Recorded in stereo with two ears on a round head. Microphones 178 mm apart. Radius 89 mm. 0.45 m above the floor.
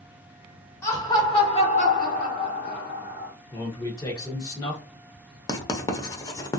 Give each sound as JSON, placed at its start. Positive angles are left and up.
{"t": 0.8, "sound": "laughter", "side_deg": 15, "distance_m": 1.2}
{"t": 3.5, "sound": "a man speaking", "side_deg": 20, "distance_m": 0.9}
{"t": 5.5, "sound": "writing", "side_deg": 20, "distance_m": 0.6}